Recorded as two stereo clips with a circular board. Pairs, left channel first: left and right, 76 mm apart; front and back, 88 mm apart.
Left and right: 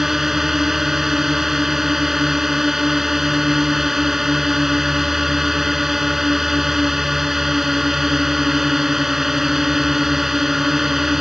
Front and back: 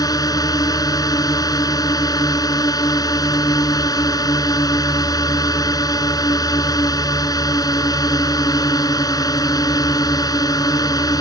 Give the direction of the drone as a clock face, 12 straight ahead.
12 o'clock.